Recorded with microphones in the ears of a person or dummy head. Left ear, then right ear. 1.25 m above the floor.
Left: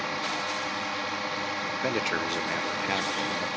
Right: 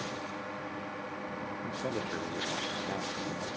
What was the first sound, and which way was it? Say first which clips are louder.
A drone: left 9 dB; 65° left (ahead or behind).